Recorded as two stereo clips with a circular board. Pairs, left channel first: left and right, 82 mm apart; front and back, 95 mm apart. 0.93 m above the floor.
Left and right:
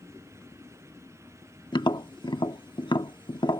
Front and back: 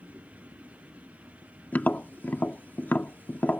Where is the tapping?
70° left.